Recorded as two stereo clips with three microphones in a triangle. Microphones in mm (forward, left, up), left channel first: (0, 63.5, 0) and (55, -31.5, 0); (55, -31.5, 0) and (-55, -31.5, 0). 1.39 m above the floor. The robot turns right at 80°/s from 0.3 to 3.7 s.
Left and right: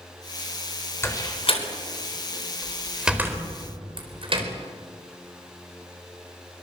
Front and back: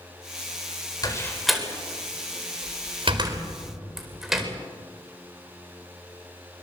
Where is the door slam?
55° left, 4 m; by 4.5 s 95° right, 4 m.